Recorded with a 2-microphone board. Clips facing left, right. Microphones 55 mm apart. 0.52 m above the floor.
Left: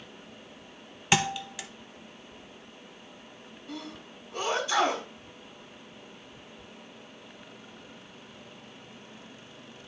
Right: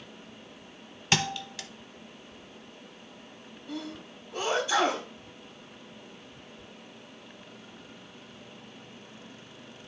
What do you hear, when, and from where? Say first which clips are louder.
1.1 s a thud: left 2 dB; 10° left (ahead or behind), 0.5 m
3.7 s a sneeze: right 3 dB; 20° right (ahead or behind), 4 m